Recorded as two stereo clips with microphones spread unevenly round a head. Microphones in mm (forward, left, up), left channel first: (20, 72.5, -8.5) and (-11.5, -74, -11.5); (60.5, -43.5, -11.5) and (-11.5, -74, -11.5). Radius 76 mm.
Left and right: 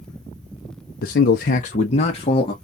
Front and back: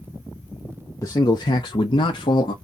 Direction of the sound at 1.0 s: 80° left.